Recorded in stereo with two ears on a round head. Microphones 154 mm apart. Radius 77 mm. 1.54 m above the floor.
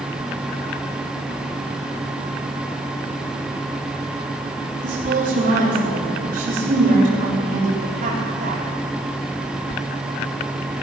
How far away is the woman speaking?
About 3.5 m.